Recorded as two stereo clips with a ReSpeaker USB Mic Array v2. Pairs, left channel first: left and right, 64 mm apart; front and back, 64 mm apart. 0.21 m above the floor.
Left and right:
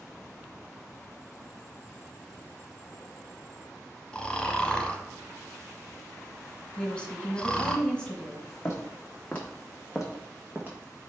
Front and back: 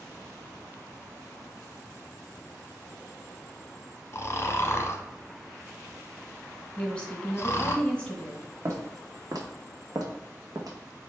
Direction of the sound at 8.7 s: 140° left.